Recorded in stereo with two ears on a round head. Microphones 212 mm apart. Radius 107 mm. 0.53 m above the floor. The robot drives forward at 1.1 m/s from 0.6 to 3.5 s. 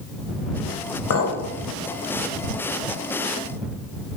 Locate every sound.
1.1 s a clink: 60° left (ahead or behind), 1.6 m; by 1.4 s 70° left (ahead or behind), 1.5 m